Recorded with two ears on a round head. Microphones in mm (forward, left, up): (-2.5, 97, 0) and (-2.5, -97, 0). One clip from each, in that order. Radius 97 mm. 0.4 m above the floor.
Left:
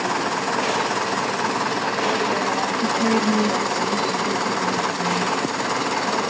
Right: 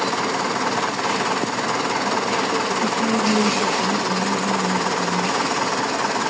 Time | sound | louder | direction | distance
2.8 | a woman speaking | even | 30° left (ahead or behind) | 1.6 m